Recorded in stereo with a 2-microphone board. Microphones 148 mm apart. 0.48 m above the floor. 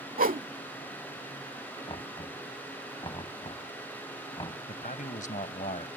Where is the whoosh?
70° right (ahead or behind).